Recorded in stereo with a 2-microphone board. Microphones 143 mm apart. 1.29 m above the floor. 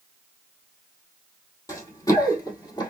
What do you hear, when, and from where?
1.7 s running footsteps: 20° left (ahead or behind), 1.5 m; by 2.9 s 30° left (ahead or behind), 1.4 m